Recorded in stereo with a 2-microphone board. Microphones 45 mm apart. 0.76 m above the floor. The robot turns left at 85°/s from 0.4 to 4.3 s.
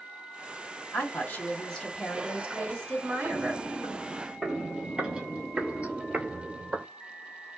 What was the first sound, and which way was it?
A woman speaking, 90° left.